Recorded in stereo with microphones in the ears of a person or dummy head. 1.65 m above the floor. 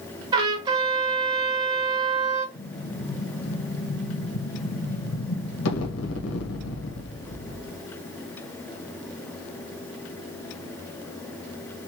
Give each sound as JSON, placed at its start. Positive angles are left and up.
{"t": 0.3, "sound": "a trumpet", "side_deg": -25, "distance_m": 0.6}
{"t": 2.5, "sound": "an explosion", "side_deg": 75, "distance_m": 1.3}